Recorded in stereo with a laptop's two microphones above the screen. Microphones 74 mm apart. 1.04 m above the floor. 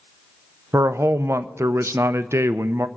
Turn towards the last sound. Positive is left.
turn(degrees=-40)  # may be behind; listen again after turning